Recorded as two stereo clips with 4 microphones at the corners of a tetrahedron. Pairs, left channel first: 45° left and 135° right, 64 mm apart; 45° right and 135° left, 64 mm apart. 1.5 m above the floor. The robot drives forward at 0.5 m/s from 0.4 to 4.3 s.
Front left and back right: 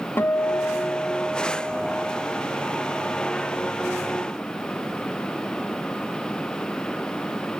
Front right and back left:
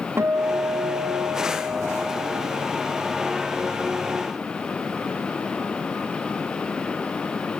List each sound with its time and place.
0.2 s a guitar: 90° left, 0.6 m; by 4.1 s 165° left, 2.0 m